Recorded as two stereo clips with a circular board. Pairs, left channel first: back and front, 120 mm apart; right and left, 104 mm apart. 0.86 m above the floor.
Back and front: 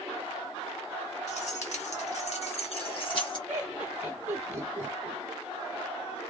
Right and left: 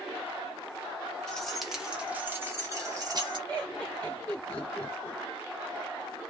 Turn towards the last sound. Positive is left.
turn(degrees=-15)